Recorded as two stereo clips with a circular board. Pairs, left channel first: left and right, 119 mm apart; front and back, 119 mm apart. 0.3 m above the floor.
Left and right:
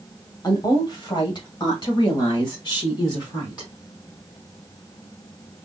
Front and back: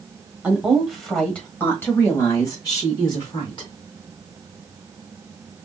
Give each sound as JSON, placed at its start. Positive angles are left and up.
{"t": 0.4, "sound": "a woman speaking", "azimuth_deg": 110, "distance_m": 1.3}